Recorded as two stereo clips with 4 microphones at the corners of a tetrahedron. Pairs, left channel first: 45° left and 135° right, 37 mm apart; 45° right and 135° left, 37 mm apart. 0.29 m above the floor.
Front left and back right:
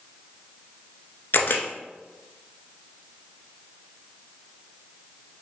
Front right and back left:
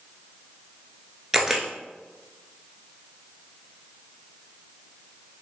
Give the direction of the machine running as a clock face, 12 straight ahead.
No machine running in this recording.